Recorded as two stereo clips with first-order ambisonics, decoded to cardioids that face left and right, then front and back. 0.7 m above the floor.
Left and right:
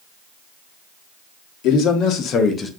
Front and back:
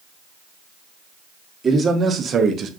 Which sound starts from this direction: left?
A man speaking, at 1.6 s.